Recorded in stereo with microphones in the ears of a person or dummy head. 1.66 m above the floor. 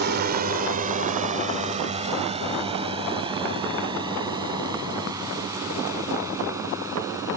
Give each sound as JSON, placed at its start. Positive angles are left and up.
{"t": 0.0, "sound": "a drone", "side_deg": -45}